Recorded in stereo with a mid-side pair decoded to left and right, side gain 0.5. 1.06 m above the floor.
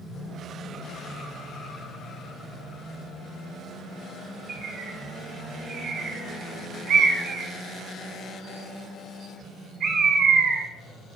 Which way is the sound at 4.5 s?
60° right.